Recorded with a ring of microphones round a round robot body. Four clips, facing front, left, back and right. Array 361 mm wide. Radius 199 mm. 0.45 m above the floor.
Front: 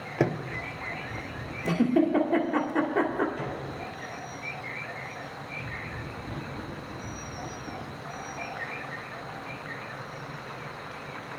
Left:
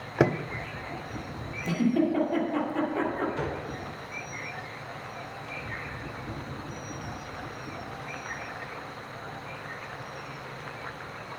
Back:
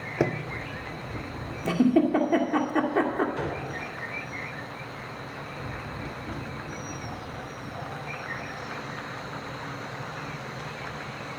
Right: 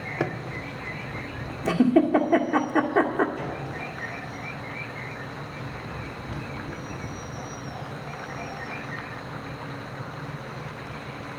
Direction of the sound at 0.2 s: 85° left.